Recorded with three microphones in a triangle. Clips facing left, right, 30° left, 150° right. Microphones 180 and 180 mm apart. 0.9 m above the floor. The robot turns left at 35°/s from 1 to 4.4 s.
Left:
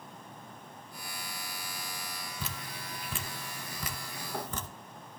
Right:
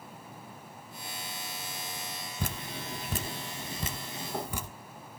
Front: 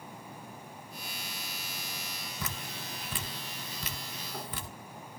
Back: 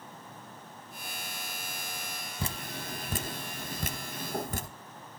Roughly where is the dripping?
Right.